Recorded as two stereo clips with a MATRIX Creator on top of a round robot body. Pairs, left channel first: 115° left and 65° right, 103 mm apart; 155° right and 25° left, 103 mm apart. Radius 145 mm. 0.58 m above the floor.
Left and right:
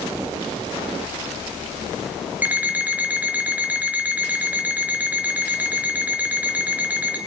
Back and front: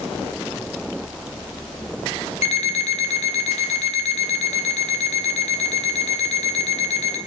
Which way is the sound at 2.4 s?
145° right.